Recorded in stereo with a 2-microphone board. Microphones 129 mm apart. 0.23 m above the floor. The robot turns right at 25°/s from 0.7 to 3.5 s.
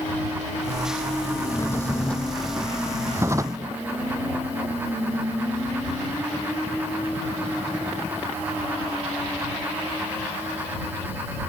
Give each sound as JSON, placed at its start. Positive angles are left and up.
{"t": 1.4, "sound": "a drawer", "azimuth_deg": 155}